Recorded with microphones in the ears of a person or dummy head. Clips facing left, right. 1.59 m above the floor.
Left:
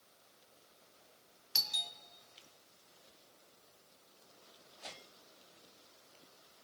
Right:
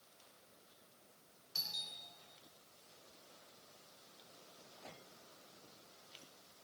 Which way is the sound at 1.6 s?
85° left.